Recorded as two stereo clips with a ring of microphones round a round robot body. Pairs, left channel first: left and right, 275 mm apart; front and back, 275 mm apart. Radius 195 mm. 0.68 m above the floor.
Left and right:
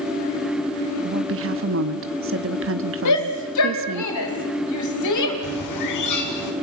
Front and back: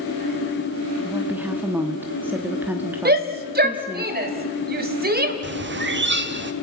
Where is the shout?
125° left, 3.5 m.